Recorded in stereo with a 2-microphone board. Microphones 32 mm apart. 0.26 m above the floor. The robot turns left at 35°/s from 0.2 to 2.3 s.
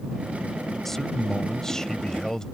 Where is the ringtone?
No ringtone in this recording.